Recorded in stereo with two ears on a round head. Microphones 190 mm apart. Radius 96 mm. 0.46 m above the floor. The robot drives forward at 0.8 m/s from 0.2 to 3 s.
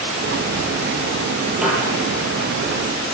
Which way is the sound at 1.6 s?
5° right (ahead or behind).